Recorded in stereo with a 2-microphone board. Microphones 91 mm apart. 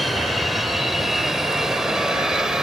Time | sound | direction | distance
0.0 | an aircraft | centre (ahead or behind) | ?